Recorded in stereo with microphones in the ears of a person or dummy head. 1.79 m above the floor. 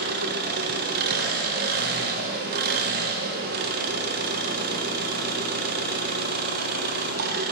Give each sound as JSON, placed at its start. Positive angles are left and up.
{"t": 0.0, "sound": "an engine running", "side_deg": -50, "distance_m": 0.7}